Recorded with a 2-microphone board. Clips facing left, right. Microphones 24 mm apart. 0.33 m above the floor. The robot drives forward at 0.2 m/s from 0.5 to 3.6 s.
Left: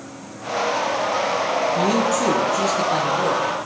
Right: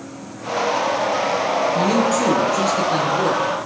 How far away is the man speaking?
About 6.5 m.